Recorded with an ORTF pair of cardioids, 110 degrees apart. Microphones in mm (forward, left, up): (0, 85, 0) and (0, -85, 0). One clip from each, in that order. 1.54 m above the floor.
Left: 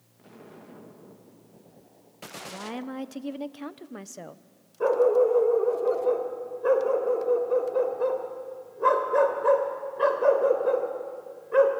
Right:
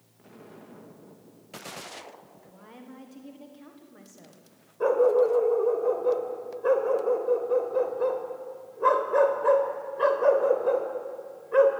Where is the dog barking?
Straight ahead, 3 m.